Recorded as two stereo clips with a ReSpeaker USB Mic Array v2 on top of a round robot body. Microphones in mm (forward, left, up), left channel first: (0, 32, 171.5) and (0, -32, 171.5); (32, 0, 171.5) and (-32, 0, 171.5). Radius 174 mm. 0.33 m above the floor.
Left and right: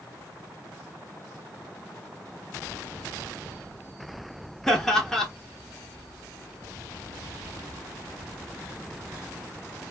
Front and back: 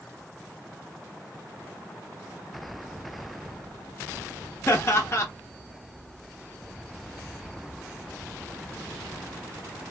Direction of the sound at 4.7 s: 15° left.